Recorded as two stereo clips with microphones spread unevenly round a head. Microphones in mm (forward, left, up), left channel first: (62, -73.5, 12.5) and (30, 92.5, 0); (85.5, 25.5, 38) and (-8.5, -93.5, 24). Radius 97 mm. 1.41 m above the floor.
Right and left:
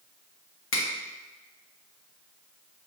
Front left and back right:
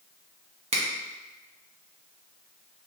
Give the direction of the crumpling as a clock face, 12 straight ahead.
No crumpling in this recording.